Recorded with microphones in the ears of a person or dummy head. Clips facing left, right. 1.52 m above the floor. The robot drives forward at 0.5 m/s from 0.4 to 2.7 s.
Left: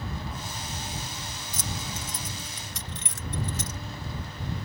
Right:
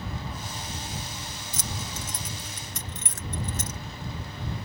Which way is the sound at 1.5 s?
60° right (ahead or behind).